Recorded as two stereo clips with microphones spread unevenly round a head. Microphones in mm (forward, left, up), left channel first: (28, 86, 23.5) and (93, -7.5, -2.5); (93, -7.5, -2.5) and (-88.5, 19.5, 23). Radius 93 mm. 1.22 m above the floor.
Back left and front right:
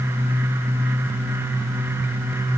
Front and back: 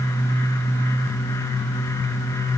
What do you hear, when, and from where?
Only background noise.